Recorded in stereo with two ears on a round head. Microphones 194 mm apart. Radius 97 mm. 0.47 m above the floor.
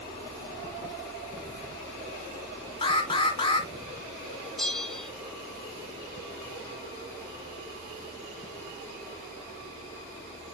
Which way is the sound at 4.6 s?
Centre (ahead or behind).